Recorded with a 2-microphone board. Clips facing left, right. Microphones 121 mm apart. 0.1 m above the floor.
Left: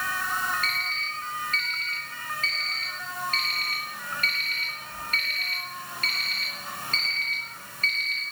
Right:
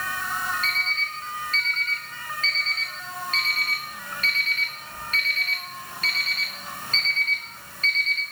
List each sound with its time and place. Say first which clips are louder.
0.6 s an alarm clock: right 2 dB; 45° left (ahead or behind), 5 m